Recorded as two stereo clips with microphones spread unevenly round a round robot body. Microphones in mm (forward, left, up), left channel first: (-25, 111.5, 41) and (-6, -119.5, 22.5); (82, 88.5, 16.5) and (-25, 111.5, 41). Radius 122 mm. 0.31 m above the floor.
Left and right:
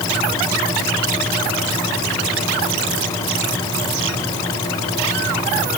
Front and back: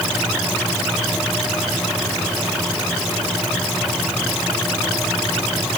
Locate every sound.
Only background noise.